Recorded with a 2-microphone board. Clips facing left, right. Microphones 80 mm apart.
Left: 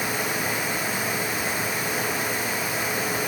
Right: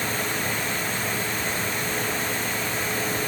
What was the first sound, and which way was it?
Only background noise.